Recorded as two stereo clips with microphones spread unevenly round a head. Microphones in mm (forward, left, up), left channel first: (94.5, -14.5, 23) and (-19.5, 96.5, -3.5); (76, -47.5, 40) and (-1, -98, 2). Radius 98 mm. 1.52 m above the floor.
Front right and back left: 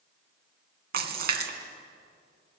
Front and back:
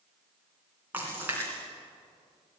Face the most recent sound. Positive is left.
turn(degrees=120)